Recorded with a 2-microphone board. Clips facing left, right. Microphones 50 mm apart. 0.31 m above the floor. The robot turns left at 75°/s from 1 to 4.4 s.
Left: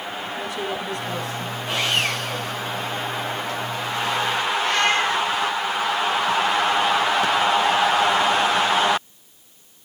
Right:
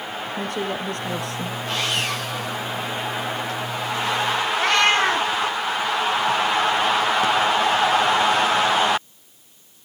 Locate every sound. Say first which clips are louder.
0.4 s a woman speaking: right 2 dB; 55° right, 4.5 m; by 1.6 s 100° right, 4.5 m
1.7 s sawing: left 2 dB; 170° left, 9 m; by 2.6 s 100° left, 9 m
4.6 s a cat meowing: right 3 dB; 65° right (ahead or behind), 4.5 m